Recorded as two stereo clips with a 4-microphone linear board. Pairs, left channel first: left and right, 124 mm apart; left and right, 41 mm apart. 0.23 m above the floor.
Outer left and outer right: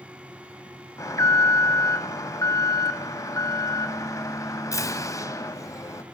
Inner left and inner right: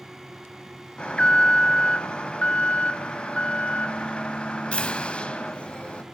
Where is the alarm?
25° left (ahead or behind), 0.8 m.